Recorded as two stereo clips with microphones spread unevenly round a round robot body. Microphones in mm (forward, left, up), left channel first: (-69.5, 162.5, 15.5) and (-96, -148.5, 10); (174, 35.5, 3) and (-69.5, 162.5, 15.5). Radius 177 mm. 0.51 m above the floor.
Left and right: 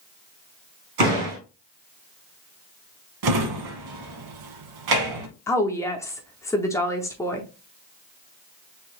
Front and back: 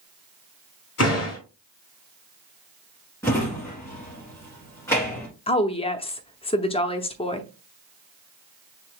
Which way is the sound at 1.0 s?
80° right.